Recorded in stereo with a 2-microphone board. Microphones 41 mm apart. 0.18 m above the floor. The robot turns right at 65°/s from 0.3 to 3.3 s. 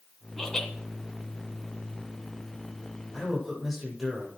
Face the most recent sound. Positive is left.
turn(degrees=-5)  # may be behind; listen again after turning